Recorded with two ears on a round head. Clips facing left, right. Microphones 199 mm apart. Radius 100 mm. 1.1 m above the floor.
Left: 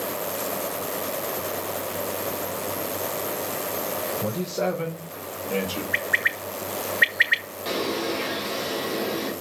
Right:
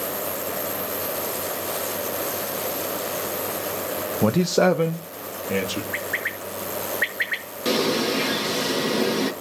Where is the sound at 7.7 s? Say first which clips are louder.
Right 5 dB; 60° right (ahead or behind), 1.7 m.